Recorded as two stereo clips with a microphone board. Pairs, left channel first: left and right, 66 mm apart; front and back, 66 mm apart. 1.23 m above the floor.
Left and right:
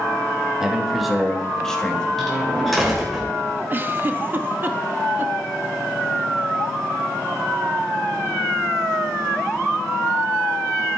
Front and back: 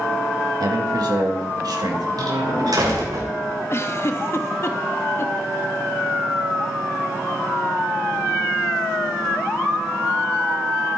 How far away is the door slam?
About 3 m.